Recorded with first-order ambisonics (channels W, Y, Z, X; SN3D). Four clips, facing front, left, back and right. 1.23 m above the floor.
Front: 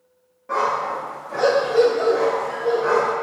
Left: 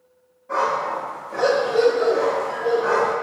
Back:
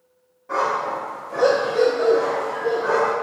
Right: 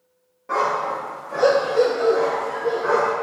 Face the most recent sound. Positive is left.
turn(degrees=40)